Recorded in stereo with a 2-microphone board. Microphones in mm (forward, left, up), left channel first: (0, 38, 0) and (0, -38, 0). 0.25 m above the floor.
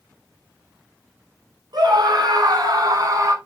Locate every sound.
1.7 s a scream: 65° right (ahead or behind), 4.5 m; by 3.4 s 45° right (ahead or behind), 2.5 m